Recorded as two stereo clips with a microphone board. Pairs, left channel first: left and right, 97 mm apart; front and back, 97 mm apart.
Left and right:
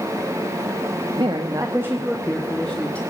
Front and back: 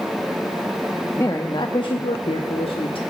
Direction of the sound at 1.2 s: 60° right.